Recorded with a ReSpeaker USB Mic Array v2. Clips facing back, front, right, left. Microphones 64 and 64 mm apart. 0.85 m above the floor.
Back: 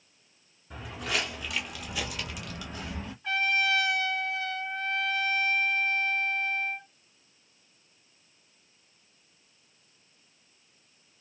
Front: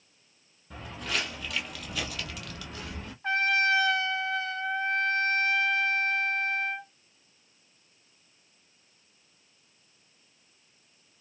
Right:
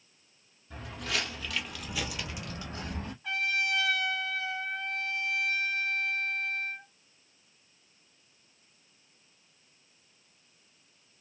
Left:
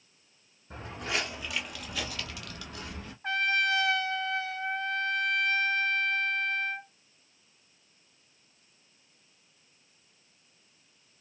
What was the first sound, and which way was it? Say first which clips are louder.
Footsteps: back 1 dB, left 1 dB; 95° left.